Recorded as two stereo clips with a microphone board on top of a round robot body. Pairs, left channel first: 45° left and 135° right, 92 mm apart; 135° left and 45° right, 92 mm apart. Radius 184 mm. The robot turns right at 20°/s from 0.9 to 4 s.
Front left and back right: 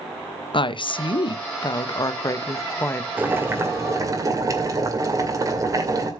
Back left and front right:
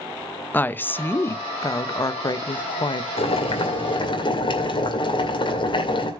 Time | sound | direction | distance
0.5 | a woman speaking | 65° left | 0.8 m
3.2 | boiling | 155° left | 2.5 m